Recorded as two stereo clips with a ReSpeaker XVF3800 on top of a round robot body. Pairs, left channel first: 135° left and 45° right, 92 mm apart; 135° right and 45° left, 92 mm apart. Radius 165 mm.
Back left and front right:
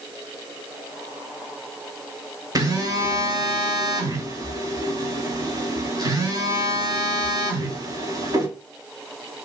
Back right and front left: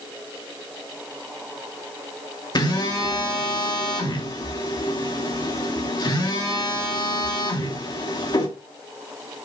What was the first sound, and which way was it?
A phone buzzing, 95° right.